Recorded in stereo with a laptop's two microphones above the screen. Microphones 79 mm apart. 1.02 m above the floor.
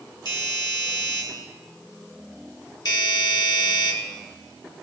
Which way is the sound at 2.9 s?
60° left (ahead or behind).